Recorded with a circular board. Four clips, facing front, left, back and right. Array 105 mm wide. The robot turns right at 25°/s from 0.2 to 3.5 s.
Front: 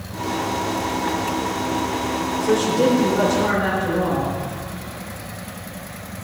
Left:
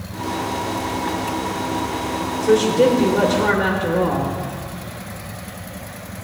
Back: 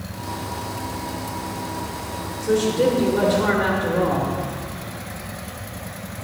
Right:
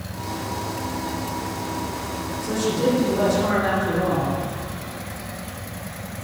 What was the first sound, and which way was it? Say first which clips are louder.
A woman speaking: left 8 dB, even; 80° left.